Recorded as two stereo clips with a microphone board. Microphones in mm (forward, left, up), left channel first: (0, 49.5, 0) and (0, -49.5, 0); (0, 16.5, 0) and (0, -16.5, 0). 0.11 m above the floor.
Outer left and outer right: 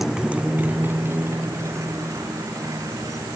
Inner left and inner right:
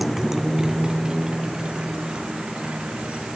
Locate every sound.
0.0 s a motorcycle: centre (ahead or behind); by 3.4 s 35° right (ahead or behind)